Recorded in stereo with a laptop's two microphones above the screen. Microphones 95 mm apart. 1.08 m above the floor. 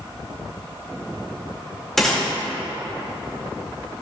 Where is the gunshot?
5° left (ahead or behind), 2.5 m.